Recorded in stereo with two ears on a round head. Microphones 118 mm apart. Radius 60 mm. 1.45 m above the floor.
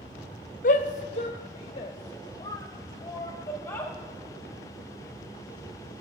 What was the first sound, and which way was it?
A shout, 65° left (ahead or behind).